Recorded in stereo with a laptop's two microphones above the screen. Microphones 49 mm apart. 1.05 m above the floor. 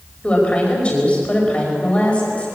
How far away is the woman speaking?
About 5.5 m.